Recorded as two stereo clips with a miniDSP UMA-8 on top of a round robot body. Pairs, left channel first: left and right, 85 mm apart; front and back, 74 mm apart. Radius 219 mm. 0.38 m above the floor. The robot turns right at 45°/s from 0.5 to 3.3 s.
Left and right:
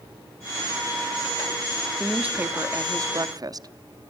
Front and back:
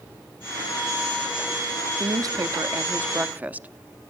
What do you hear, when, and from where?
2.0 s a woman speaking: 175° right, 1.2 m; by 4.1 s 115° right, 1.2 m